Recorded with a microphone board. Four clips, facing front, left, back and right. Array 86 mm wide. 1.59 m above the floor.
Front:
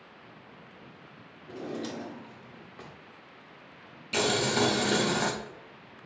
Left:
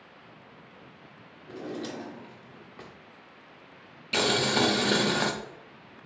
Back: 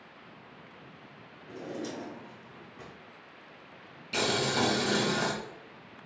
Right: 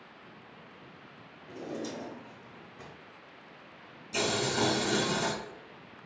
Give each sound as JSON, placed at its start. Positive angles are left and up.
{"t": 1.5, "sound": "a drawer", "azimuth_deg": 60, "distance_m": 0.8}
{"t": 4.1, "sound": "boiling", "azimuth_deg": 75, "distance_m": 0.5}